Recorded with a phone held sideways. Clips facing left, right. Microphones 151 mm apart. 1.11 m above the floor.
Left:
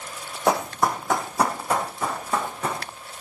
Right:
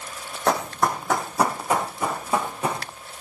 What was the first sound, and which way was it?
Running footsteps, 10° left (ahead or behind).